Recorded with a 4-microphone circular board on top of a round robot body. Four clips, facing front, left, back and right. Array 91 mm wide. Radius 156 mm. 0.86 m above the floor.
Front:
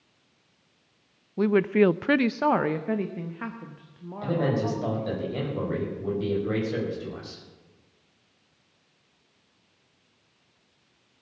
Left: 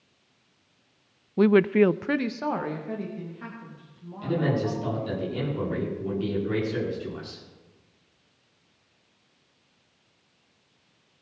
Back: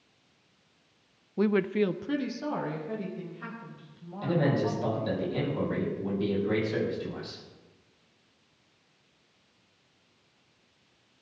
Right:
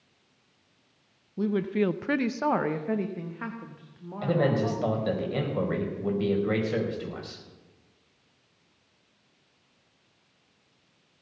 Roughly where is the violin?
No violin in this recording.